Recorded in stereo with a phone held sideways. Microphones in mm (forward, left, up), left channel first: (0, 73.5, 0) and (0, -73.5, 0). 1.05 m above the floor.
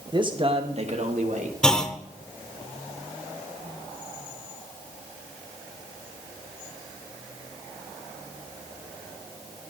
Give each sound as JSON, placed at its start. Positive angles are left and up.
{"t": 0.1, "sound": "a man speaking", "side_deg": -30, "distance_m": 1.1}
{"t": 1.6, "sound": "a clunk", "side_deg": 5, "distance_m": 0.8}